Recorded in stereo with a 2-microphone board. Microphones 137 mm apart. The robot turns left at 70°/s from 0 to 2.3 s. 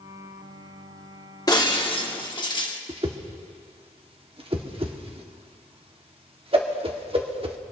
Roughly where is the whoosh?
Right.